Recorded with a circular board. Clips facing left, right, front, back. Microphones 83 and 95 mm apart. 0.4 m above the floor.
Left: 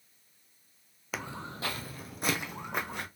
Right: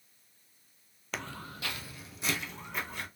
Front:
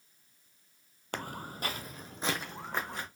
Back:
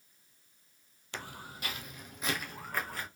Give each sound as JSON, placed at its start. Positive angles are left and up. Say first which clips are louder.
{"t": 1.1, "sound": "footsteps", "louder": "left 2 dB, front 5 dB", "azimuth_deg": 5, "distance_m": 0.6}